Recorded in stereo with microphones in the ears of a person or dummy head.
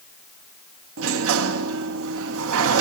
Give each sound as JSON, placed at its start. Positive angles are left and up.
{"t": 1.0, "sound": "a sliding door", "side_deg": -70, "distance_m": 0.6}